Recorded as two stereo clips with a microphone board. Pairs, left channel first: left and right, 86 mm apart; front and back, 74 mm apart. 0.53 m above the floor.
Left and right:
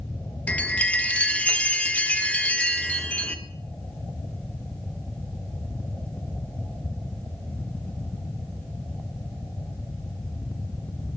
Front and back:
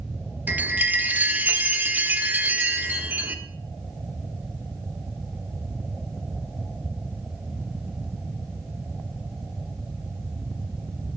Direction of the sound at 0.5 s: 145° left.